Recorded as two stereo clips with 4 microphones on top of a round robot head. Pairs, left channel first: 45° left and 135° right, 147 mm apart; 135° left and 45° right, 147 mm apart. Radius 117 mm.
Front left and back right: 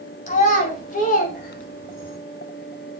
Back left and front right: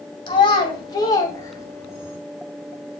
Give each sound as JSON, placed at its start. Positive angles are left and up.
{"t": 0.3, "sound": "a child speaking", "azimuth_deg": 75, "distance_m": 2.5}